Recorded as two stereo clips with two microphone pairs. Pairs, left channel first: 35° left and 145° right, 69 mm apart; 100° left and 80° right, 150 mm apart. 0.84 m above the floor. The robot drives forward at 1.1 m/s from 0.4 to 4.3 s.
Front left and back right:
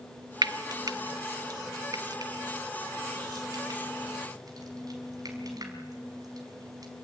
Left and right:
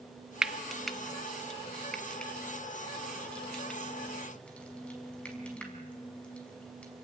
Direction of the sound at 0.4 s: 165° right.